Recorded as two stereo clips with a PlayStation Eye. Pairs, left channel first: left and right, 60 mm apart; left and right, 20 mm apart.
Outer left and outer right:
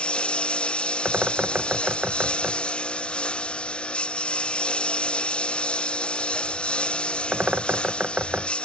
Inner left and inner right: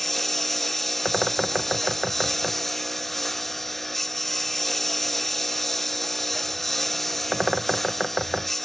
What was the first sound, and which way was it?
A lawn mower, 15° left (ahead or behind).